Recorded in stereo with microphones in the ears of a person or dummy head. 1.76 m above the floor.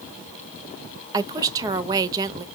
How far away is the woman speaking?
About 0.5 m.